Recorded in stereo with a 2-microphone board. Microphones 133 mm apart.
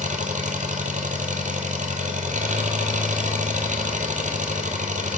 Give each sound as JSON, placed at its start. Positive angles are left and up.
{"t": 0.0, "sound": "an engine running", "side_deg": -70, "distance_m": 1.3}